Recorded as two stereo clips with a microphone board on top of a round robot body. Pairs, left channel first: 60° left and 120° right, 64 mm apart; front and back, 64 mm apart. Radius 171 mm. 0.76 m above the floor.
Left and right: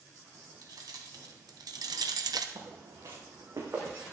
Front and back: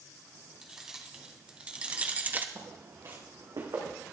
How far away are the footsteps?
About 4.5 m.